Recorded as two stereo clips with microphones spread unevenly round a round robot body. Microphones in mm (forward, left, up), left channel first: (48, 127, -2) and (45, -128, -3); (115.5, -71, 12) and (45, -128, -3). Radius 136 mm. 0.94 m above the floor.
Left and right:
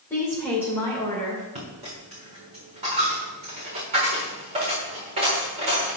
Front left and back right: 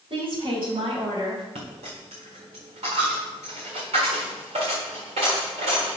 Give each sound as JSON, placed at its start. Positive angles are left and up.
{"t": 0.1, "sound": "a woman speaking", "azimuth_deg": 170, "distance_m": 3.0}
{"t": 1.6, "sound": "a dropped coin", "azimuth_deg": -160, "distance_m": 4.0}